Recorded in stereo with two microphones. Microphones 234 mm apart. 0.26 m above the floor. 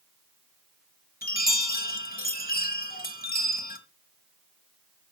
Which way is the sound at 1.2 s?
40° left (ahead or behind).